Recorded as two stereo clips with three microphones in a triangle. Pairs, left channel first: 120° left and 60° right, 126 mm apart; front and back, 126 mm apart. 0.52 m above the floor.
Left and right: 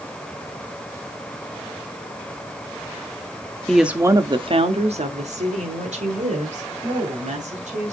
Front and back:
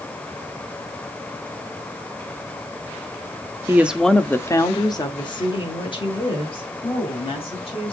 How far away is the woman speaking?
About 0.6 m.